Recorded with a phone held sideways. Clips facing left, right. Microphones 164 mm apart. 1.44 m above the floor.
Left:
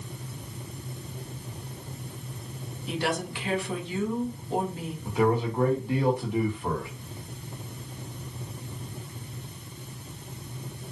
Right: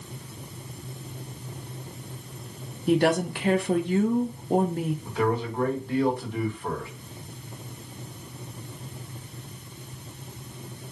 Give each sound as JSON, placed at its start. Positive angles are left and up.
{"t": 2.9, "sound": "a woman speaking", "side_deg": -55, "distance_m": 0.6}
{"t": 5.0, "sound": "a man speaking", "side_deg": 15, "distance_m": 1.4}